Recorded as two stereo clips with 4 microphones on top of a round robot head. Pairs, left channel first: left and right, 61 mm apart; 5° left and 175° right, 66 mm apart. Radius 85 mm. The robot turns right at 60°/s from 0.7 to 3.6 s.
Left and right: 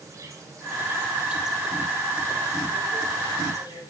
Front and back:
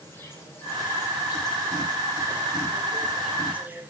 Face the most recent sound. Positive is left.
turn(degrees=120)